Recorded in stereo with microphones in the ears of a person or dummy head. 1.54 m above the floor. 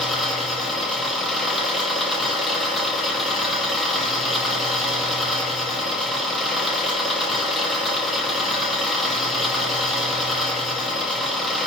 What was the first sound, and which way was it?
An engine running, centre (ahead or behind).